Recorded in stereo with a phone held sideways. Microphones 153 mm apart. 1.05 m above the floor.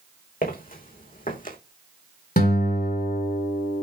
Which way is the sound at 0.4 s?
65° left (ahead or behind).